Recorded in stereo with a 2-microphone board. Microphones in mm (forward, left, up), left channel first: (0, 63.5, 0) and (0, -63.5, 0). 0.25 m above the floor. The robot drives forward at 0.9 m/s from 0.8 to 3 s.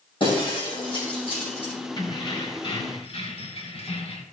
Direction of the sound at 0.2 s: 40° left (ahead or behind).